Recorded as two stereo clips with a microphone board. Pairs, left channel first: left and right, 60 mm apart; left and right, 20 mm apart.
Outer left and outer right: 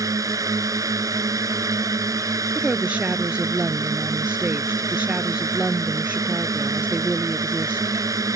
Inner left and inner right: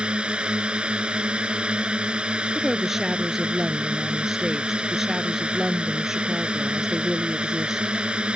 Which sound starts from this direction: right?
A drone, at 0.0 s.